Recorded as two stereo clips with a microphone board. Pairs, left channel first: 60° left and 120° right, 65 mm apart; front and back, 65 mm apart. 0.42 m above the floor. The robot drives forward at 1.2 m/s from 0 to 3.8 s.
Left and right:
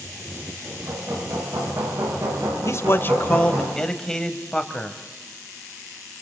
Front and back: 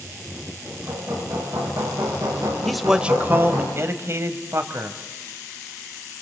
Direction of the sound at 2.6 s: 85° left.